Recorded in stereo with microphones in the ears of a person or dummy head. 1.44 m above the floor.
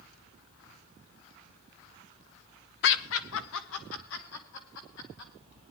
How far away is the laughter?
About 0.9 m.